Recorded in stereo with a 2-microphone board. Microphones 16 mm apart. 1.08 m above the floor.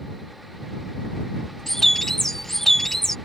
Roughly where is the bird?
Left.